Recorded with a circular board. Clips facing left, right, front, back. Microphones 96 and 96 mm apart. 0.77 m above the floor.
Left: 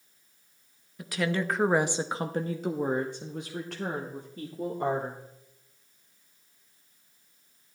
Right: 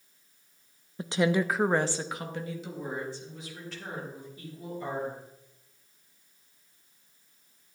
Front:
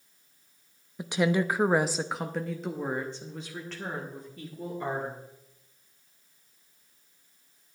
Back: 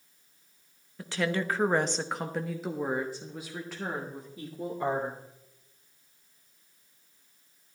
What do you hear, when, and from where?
1.0 s a woman speaking: 60° right, 0.7 m; by 5.2 s 105° left, 2.5 m